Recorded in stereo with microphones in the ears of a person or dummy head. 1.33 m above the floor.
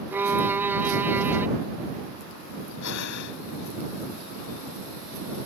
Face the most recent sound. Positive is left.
turn(degrees=70)  # may be behind; listen again after turning